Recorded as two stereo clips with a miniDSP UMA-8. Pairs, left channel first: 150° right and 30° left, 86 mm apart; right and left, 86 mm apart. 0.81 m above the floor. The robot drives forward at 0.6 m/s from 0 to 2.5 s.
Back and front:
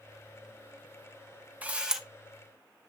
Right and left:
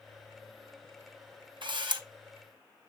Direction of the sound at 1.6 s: 100° left.